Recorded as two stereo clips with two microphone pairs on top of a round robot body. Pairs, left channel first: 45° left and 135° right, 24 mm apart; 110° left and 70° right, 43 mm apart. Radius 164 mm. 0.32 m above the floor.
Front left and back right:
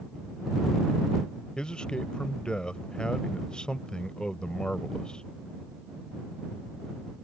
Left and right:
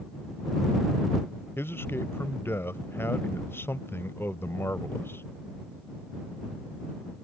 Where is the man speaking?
95° left.